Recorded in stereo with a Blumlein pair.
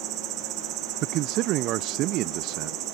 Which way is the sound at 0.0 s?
35° right.